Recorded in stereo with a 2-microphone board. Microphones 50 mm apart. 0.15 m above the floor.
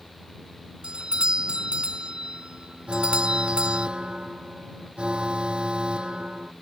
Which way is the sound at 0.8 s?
20° right (ahead or behind).